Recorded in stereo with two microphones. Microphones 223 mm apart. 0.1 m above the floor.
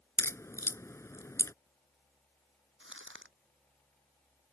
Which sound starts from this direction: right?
Crumpling, at 2.8 s.